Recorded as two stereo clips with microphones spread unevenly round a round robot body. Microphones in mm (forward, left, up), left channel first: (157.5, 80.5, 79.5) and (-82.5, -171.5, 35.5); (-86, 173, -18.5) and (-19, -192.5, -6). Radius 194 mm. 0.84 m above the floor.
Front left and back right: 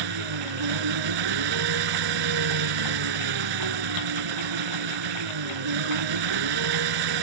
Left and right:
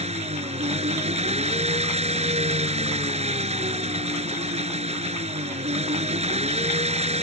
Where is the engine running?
150° right.